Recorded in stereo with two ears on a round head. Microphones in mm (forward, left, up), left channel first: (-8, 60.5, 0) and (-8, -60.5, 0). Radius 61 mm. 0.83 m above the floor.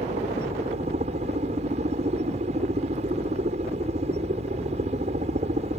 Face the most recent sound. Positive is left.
turn(degrees=-50)  # may be behind; listen again after turning